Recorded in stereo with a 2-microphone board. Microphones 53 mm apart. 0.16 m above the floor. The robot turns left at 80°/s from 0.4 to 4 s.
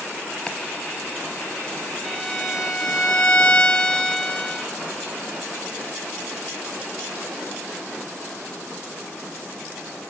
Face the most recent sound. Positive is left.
turn(degrees=25)  # may be behind; listen again after turning